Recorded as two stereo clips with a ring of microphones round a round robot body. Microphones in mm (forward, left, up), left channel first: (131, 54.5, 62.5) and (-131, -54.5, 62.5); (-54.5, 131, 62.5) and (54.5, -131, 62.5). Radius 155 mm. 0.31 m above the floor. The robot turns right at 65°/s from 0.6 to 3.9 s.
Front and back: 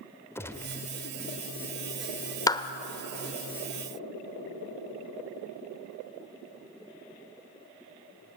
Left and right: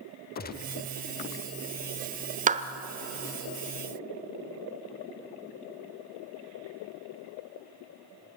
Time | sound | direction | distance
0.3 | a gunshot | 95° left | 1.2 m
2.5 | a clap | 45° right | 1.1 m